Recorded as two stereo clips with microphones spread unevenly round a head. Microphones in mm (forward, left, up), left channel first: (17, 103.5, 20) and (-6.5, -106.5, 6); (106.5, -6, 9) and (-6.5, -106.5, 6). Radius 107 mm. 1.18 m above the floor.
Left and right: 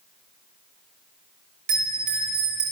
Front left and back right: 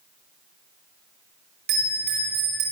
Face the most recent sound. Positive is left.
turn(degrees=-140)